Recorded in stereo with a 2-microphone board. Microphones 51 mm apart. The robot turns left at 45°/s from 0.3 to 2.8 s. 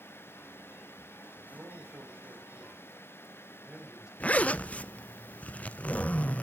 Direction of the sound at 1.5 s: 110° right.